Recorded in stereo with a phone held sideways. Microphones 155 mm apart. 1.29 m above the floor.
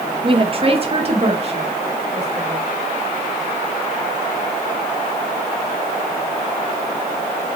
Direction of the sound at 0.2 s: 35° right (ahead or behind).